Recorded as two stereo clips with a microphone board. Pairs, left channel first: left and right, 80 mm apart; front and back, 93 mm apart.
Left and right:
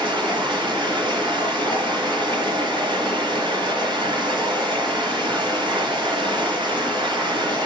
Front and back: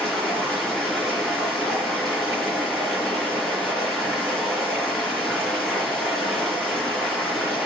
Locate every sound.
0.0 s running water: 85° right, 3.5 m